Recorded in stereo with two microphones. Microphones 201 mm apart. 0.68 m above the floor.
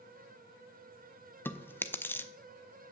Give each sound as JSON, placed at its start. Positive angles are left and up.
{"t": 1.4, "sound": "chewing", "side_deg": 10, "distance_m": 0.6}